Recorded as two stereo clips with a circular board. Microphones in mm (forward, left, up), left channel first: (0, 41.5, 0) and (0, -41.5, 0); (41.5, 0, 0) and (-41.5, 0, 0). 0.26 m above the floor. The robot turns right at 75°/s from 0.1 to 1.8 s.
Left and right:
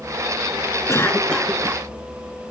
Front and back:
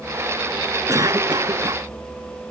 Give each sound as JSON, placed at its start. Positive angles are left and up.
{"t": 0.9, "sound": "a cough", "azimuth_deg": 135}